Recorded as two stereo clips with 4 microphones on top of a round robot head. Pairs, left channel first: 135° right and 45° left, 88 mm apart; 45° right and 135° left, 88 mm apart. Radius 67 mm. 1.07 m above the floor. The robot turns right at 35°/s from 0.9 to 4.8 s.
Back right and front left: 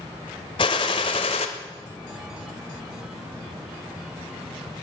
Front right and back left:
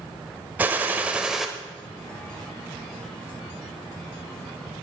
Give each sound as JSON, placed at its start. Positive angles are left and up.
{"t": 0.6, "sound": "a gunshot", "azimuth_deg": -155, "distance_m": 1.0}